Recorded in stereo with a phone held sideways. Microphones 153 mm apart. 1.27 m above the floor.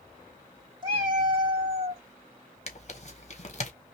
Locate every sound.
0.8 s a cat meowing: 30° right (ahead or behind), 2 m
2.7 s tearing paper: 45° left (ahead or behind), 0.8 m